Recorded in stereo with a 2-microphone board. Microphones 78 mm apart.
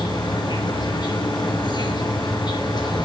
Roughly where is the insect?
Left.